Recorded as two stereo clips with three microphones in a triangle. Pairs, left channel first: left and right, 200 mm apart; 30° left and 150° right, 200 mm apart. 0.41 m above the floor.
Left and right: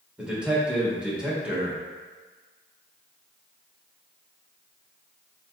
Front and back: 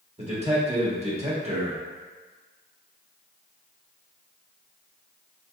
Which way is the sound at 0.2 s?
170° right.